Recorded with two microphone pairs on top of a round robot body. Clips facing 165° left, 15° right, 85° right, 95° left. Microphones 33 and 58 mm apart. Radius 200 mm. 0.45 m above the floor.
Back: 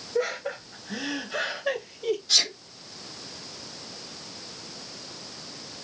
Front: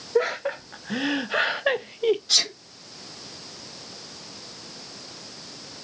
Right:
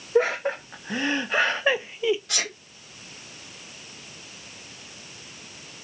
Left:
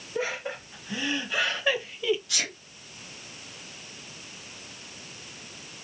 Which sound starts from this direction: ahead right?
Laughter, at 0.1 s.